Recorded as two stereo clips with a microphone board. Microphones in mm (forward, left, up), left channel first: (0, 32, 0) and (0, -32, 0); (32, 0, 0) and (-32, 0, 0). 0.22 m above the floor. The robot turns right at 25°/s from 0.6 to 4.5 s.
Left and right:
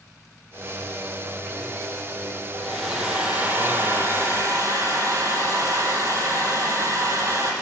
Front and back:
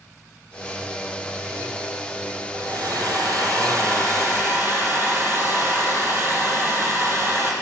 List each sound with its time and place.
2.5 s a hair dryer: straight behind, 2.5 m; by 7.5 s 130° right, 2.5 m